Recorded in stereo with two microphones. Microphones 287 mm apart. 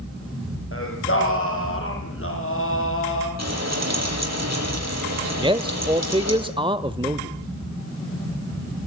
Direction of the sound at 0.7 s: 45° left (ahead or behind).